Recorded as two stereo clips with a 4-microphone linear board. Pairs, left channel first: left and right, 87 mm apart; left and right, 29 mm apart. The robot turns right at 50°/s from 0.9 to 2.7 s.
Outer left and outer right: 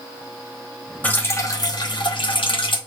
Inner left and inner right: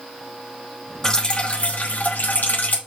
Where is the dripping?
20° left, 1.0 m; by 2.8 s 100° left, 1.0 m.